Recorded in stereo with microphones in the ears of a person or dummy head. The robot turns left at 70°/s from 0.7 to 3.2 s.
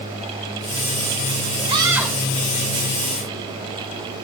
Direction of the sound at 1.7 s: 150° right.